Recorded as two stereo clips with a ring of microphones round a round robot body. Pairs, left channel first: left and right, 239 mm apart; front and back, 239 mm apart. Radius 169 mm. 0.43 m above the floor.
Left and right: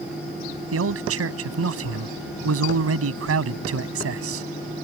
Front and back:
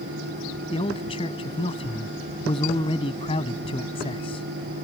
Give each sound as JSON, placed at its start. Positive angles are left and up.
{"t": 0.7, "sound": "a man speaking", "azimuth_deg": -75}